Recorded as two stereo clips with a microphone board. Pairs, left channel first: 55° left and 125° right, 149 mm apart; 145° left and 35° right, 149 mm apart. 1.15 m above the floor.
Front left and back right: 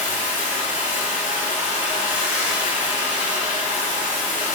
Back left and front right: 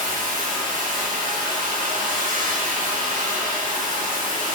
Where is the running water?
45° right, 8.5 m.